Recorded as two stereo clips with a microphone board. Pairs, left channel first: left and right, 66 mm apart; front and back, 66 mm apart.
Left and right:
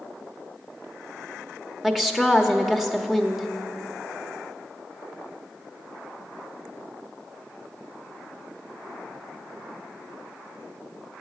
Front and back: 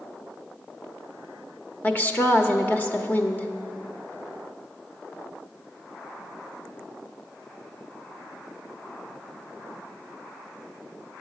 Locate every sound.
1.8 s a woman speaking: 10° right, 1.0 m